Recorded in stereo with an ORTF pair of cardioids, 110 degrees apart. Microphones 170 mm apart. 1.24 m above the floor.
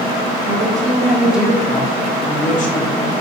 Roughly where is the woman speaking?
Ahead right.